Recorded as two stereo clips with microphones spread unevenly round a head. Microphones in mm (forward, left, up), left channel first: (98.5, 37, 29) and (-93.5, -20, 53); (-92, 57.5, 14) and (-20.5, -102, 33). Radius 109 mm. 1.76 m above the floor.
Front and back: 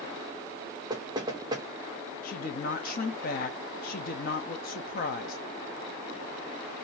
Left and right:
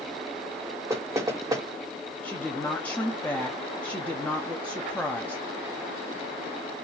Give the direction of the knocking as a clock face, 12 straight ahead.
4 o'clock.